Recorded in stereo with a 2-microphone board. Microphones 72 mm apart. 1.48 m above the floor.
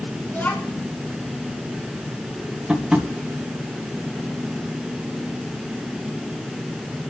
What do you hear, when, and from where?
0.3 s a child speaking: 30° left (ahead or behind), 2 m
2.7 s tapping: 15° right (ahead or behind), 1.7 m